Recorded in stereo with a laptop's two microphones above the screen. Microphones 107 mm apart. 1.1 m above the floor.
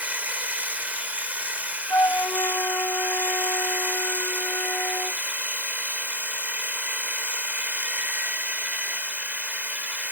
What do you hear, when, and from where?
0.0 s a machine running: 15° right (ahead or behind)
1.9 s a flute: 30° left (ahead or behind)